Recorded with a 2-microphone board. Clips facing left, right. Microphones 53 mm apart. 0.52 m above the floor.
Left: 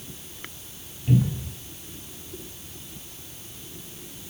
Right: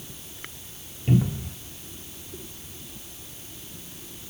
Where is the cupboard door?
30° right (ahead or behind), 3 m.